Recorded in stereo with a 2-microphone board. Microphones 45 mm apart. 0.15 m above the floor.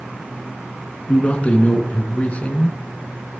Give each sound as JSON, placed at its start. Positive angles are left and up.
{"t": 1.1, "sound": "a man speaking", "side_deg": 30, "distance_m": 1.7}